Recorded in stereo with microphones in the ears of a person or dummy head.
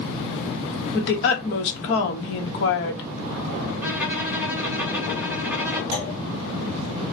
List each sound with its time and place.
0.9 s a woman speaking: 60° left (ahead or behind), 1.0 m
3.8 s a violin: 10° right (ahead or behind), 1.3 m
5.9 s a clunk: 40° left (ahead or behind), 1.9 m